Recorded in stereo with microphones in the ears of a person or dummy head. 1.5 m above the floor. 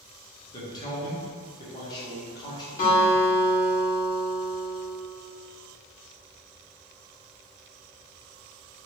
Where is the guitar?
45° left (ahead or behind), 1.7 m.